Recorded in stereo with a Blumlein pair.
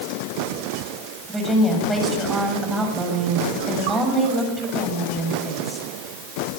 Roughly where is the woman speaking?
Ahead.